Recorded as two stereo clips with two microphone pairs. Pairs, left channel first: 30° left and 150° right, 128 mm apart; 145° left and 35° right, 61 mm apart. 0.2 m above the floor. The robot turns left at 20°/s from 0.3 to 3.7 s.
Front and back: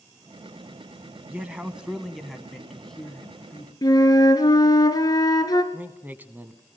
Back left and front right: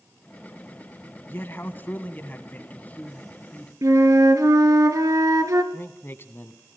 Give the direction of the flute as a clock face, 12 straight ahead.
1 o'clock.